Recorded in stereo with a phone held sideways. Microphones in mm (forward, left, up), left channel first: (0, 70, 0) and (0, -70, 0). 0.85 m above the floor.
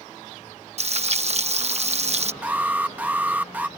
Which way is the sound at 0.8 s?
50° right (ahead or behind).